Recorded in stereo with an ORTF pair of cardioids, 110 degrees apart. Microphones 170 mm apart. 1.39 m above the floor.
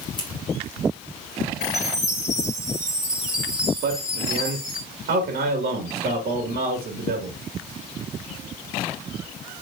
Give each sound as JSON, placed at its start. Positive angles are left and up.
{"t": 0.2, "sound": "scissors", "azimuth_deg": 25, "distance_m": 3.5}
{"t": 1.6, "sound": "a chime", "azimuth_deg": 15, "distance_m": 5.5}
{"t": 3.8, "sound": "a man speaking", "azimuth_deg": -65, "distance_m": 2.5}